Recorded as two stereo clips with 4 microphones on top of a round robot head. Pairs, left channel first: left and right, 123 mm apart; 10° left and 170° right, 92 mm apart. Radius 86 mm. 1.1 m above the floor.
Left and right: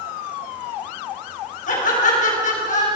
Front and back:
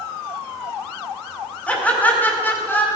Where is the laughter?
80° left, 4.5 m; by 2.9 s 75° left, 4.5 m.